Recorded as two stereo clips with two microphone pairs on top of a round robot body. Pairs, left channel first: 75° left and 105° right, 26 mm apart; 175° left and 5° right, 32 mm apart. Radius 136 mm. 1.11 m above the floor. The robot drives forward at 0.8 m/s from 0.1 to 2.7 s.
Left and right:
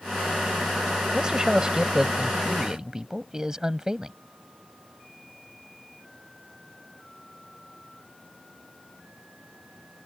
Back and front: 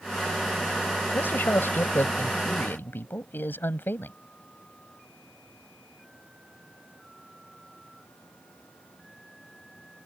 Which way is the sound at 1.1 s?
165° right.